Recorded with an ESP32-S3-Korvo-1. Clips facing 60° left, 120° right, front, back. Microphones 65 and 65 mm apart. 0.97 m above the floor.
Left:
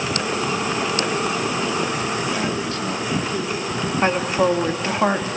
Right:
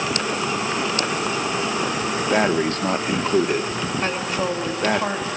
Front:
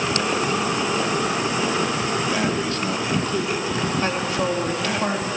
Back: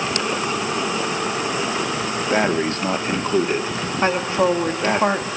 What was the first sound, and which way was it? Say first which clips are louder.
Breathing: right 5 dB, back 3 dB; 140° right.